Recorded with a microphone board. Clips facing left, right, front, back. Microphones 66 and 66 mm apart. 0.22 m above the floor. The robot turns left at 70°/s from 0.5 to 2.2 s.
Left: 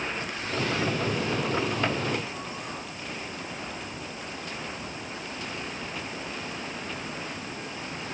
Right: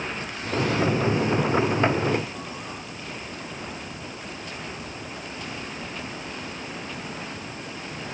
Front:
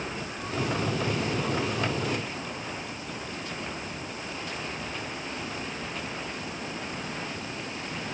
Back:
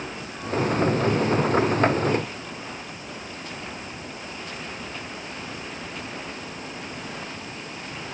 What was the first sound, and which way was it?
Only background noise.